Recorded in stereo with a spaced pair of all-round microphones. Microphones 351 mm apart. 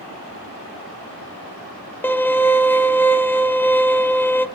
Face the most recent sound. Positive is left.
turn(degrees=5)  # may be behind; listen again after turning